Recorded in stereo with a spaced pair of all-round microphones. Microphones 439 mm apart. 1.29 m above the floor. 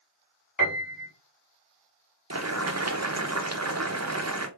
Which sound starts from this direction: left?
A piano, at 0.6 s.